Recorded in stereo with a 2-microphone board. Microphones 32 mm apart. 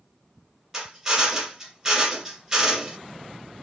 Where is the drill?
10° right (ahead or behind), 1.6 m.